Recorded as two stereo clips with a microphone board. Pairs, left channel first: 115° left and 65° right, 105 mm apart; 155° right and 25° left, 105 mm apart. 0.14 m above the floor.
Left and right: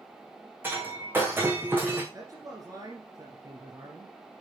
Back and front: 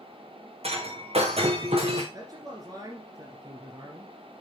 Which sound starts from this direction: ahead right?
A man speaking, at 2.1 s.